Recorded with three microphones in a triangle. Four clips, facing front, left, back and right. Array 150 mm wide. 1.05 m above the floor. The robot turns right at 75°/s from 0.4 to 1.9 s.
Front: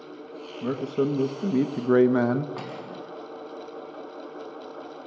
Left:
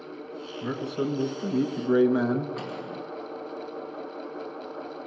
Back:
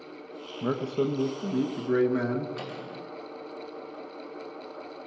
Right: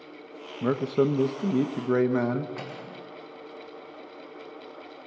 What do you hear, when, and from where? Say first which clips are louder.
0.6 s a man speaking: right 6 dB, front 2 dB; 110° right, 1.3 m; by 2.5 s 15° right, 1.3 m
2.6 s cutlery clinking: left 4 dB, front 2 dB; 10° right, 5 m